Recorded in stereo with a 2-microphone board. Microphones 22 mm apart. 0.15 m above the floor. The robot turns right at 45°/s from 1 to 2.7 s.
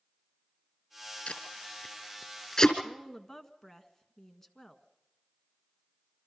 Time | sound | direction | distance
1.3 | tape being pulled | 60° left (ahead or behind) | 2 m
2.8 | a woman speaking | 20° left (ahead or behind) | 1.6 m